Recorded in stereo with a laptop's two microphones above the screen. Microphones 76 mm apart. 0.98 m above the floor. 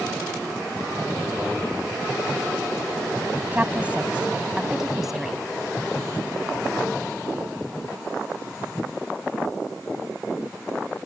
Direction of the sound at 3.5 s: 20° right (ahead or behind).